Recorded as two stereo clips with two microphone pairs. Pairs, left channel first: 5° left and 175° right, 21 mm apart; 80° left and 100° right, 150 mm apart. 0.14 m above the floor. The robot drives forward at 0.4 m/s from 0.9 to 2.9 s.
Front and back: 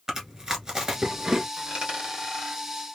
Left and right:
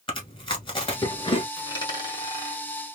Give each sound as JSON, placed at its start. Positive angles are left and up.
{"t": 0.1, "sound": "chewing", "azimuth_deg": 125, "distance_m": 1.4}
{"t": 1.6, "sound": "a dropped coin", "azimuth_deg": 140, "distance_m": 1.8}